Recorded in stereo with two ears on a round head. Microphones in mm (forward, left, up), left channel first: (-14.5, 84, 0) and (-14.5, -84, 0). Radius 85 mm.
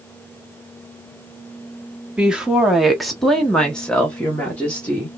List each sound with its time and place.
2.2 s a woman speaking: 5° right (ahead or behind), 1.2 m; by 5.1 s 10° left (ahead or behind), 1.6 m